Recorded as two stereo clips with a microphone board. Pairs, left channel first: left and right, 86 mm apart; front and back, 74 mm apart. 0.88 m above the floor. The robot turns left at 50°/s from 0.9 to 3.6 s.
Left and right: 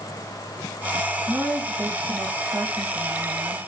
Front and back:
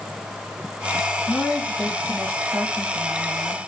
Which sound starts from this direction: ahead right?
A woman speaking, at 1.3 s.